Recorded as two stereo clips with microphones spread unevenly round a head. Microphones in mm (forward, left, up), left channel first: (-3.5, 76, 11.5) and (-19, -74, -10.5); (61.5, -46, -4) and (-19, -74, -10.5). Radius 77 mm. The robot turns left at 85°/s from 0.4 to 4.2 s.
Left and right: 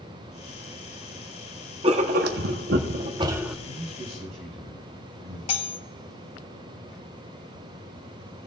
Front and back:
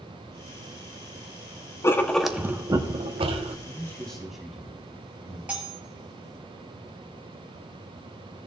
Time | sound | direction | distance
1.8 | writing | 40° right | 0.9 m
3.6 | a man speaking | 25° right | 5 m
5.5 | cutlery clinking | 120° left | 0.9 m